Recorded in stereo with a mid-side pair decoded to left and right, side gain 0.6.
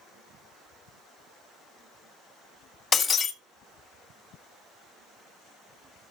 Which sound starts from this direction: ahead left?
Breaking glass, at 2.9 s.